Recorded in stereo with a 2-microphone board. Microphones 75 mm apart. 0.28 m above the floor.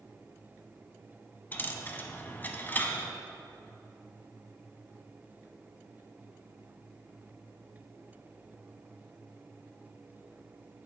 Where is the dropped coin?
25° left (ahead or behind), 0.7 m.